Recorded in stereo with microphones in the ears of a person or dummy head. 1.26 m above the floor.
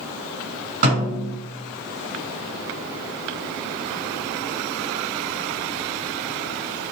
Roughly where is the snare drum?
Right.